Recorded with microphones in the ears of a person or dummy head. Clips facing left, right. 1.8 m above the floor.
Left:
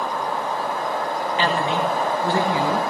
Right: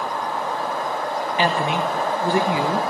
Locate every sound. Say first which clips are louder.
1.4 s a woman speaking: right 1 dB; 15° right (ahead or behind), 0.8 m